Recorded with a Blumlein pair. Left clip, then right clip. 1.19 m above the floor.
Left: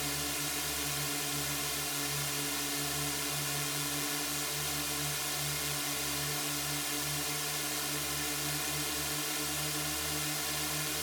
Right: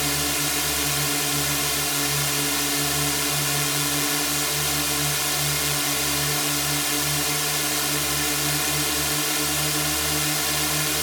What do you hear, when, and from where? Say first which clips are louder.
0.0 s a drone: right 11 dB; 60° right